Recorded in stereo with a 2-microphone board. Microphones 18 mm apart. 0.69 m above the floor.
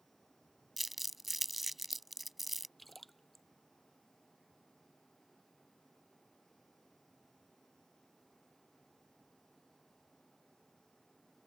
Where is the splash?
Centre (ahead or behind).